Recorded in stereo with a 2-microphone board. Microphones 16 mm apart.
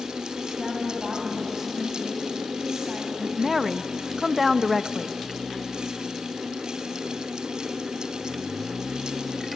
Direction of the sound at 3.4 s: 10° right (ahead or behind).